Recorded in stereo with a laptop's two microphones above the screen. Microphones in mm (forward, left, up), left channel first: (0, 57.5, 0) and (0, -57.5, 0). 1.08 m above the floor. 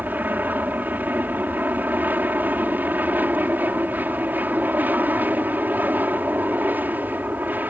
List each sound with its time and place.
0.0 s an aircraft: 15° right (ahead or behind)